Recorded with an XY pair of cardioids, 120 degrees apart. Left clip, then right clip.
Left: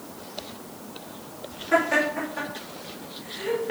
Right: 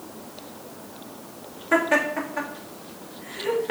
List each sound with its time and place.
1.7 s laughter: 30° right, 2.5 m